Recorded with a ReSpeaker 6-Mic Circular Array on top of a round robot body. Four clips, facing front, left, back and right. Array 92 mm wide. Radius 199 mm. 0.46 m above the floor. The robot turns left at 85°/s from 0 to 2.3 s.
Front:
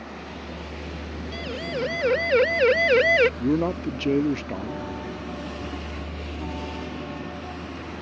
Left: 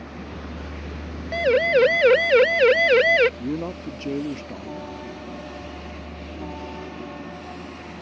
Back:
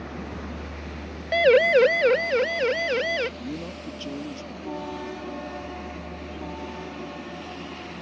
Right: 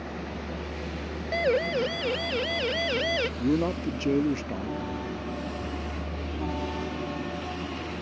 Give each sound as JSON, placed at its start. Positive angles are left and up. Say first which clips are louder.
{"t": 0.0, "sound": "a vehicle", "louder": "right 1 dB, back 2 dB", "azimuth_deg": 165}
{"t": 1.3, "sound": "a siren", "louder": "left 7 dB, back 15 dB", "azimuth_deg": 175}
{"t": 3.4, "sound": "a man speaking", "louder": "right 3 dB, front 11 dB", "azimuth_deg": -10}